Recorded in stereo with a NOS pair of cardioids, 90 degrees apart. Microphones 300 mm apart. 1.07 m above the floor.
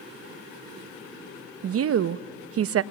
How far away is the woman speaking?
About 0.8 m.